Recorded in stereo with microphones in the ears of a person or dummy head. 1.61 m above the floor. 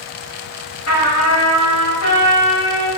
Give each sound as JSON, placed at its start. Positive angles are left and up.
{"t": 0.9, "sound": "a trumpet", "side_deg": 85, "distance_m": 1.6}